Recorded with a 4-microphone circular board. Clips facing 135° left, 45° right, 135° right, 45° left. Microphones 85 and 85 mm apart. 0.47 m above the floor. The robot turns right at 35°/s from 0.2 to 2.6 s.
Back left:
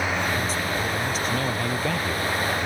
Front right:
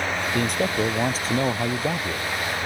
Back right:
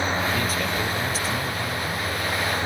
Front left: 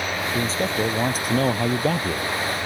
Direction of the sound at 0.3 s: 25° right.